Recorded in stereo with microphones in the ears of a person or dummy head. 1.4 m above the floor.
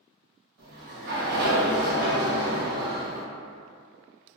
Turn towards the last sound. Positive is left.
turn(degrees=-55)  # may be behind; listen again after turning